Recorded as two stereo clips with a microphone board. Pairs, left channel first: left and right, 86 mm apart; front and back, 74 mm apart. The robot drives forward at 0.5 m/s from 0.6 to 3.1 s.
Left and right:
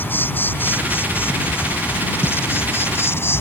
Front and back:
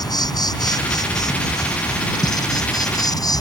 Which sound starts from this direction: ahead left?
An insect, at 0.0 s.